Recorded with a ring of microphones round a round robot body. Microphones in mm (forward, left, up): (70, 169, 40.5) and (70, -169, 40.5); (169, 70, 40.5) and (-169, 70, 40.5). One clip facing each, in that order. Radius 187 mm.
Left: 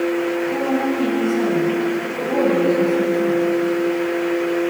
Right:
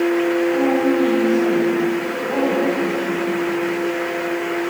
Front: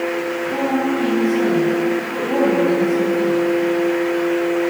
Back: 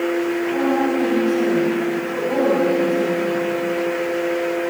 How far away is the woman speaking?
About 6.5 m.